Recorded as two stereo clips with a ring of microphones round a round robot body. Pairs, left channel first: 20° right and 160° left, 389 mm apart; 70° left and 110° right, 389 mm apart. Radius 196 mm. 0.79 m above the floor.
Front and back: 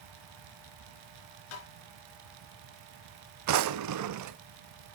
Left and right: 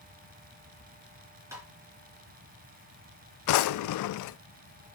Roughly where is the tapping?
Ahead right.